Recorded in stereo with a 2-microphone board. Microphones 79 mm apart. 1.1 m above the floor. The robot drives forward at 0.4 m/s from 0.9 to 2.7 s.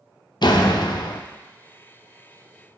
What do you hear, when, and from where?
0.4 s a door slam: 65° left (ahead or behind), 0.7 m; by 1.2 s 75° left (ahead or behind), 0.6 m